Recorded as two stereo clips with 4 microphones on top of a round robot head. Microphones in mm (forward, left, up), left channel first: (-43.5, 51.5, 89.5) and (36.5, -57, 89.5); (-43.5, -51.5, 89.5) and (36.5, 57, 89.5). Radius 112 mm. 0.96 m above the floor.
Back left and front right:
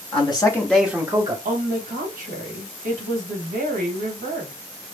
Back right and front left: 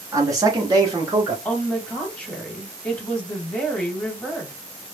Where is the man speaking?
110° left, 1.0 m; by 1.4 s 10° right, 1.1 m.